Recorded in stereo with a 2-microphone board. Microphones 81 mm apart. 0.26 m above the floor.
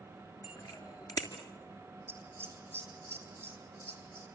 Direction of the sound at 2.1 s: 25° right (ahead or behind).